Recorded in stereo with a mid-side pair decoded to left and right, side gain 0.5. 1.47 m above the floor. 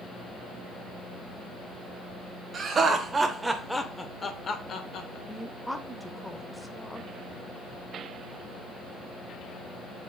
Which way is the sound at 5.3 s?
5° left.